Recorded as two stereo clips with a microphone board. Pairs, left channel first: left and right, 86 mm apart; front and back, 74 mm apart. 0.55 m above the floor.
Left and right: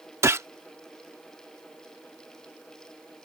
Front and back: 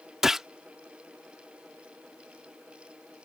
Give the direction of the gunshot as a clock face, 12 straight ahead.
3 o'clock.